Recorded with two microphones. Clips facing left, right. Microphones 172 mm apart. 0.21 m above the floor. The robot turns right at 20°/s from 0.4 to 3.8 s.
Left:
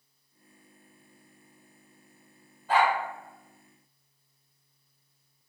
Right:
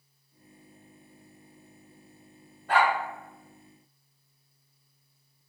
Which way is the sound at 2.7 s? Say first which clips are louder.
Even; 65° right (ahead or behind).